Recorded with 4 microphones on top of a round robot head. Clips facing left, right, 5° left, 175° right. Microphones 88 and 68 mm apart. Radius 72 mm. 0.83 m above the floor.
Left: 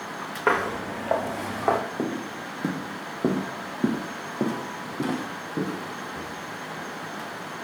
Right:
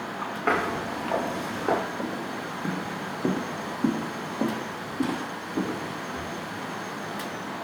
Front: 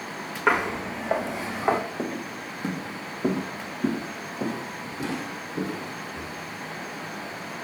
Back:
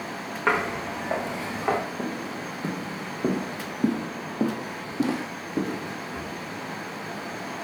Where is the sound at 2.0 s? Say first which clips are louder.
Left 1 dB, even; 90° left, 1.8 m; by 6.3 s 170° left, 2.5 m.